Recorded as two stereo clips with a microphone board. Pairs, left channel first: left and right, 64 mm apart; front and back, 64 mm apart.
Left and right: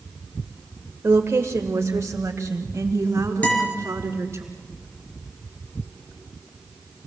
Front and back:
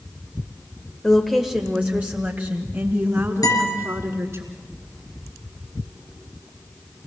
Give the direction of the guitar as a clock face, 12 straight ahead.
11 o'clock.